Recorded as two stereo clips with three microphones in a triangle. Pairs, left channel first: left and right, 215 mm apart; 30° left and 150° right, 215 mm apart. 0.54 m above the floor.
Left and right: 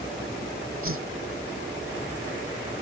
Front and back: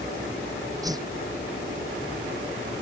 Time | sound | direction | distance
0.8 | a whoosh | 75° right | ?